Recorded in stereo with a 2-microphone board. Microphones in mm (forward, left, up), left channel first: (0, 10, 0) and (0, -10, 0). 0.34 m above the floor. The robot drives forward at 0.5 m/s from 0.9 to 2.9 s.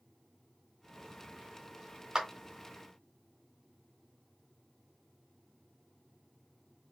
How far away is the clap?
About 1.0 m.